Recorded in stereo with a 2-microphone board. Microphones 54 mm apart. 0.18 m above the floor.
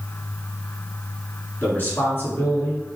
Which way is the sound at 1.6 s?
35° left (ahead or behind).